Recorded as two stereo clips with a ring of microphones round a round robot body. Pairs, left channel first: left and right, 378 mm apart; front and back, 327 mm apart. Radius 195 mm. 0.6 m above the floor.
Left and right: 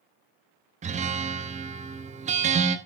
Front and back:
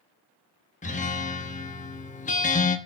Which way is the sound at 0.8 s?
40° right.